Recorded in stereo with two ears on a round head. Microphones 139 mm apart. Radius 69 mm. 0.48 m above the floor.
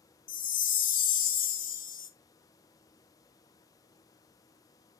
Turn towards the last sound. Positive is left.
turn(degrees=55)  # may be behind; listen again after turning